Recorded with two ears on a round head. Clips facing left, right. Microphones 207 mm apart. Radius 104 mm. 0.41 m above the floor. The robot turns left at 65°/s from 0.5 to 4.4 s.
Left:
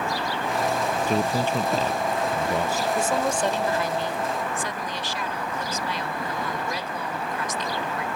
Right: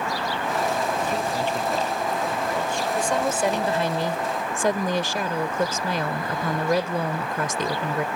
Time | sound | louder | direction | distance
1.1 | a man speaking | left 2 dB | 115° left | ?
3.0 | a woman speaking | right 2 dB | 15° left | ?